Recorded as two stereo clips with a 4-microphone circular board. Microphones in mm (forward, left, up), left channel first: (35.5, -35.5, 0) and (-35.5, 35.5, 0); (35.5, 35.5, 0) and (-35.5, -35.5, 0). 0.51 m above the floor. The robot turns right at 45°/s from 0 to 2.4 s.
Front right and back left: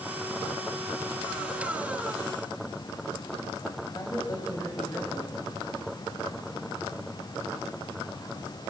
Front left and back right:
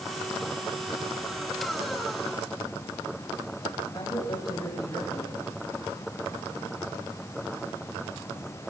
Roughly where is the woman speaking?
Ahead.